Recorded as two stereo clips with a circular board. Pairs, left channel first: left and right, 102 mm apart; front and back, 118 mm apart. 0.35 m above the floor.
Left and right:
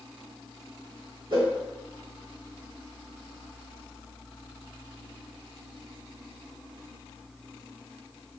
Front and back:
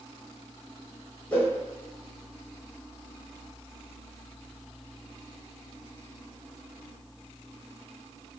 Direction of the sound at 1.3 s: 70° right.